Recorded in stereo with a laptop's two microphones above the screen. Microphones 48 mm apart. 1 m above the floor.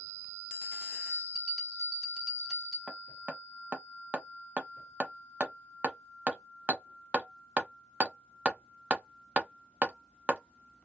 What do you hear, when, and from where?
0.9 s a bell: 10° right (ahead or behind), 0.9 m
2.9 s hammering: 25° right (ahead or behind), 0.5 m